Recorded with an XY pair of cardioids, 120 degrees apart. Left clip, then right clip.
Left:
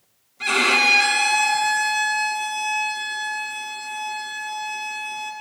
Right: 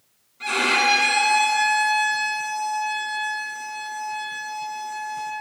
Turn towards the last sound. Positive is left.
turn(degrees=40)